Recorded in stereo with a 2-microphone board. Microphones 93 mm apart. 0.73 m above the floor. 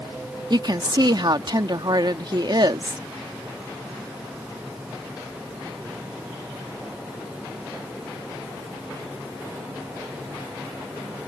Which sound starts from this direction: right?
A woman speaking, at 0.5 s.